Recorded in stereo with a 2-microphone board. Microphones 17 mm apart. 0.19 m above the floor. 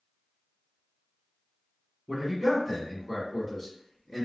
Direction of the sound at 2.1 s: 30° right (ahead or behind).